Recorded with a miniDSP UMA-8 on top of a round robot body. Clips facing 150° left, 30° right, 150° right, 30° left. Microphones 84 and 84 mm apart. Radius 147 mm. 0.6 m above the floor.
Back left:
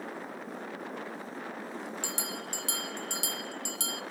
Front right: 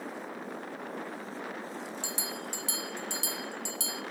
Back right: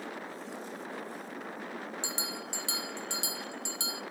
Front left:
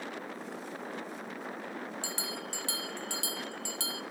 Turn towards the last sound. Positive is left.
turn(degrees=145)